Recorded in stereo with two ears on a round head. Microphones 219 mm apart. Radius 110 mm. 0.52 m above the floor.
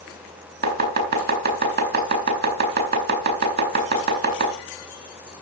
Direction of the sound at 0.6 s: 40° right (ahead or behind).